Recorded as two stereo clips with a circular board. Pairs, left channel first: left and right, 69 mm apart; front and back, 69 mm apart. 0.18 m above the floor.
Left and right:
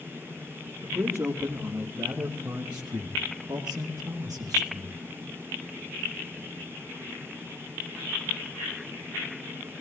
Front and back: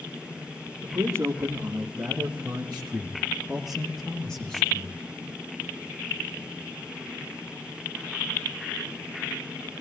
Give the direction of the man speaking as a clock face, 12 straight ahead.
5 o'clock.